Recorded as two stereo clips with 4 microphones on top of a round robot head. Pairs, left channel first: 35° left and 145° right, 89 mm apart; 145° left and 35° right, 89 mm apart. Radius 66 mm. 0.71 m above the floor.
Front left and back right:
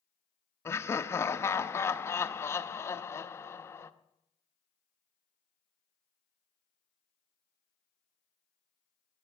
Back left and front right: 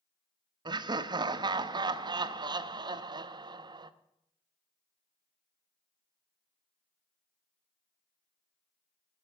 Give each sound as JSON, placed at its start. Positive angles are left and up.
{"t": 0.7, "sound": "laughter", "azimuth_deg": -20, "distance_m": 0.7}